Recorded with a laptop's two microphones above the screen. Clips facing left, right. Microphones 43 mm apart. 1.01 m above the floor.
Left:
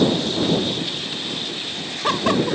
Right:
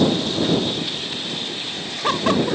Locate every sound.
Only background noise.